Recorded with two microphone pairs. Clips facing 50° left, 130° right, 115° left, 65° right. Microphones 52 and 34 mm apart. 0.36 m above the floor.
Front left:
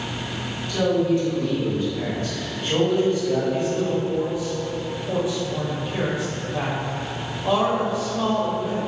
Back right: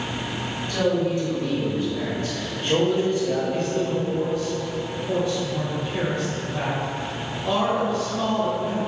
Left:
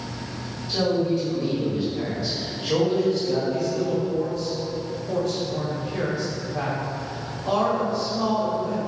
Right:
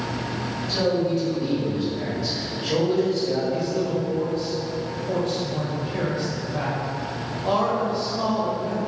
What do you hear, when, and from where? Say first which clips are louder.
0.7 s a man speaking: front left 2 dB, even; 150° right, 1.4 m
3.5 s a man speaking: front left 1 dB, even; 20° right, 1.1 m